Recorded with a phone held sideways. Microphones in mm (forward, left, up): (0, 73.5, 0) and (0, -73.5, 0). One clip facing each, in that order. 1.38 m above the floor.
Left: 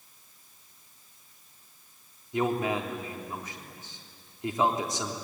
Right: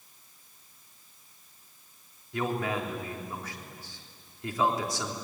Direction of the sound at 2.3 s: 20° left (ahead or behind).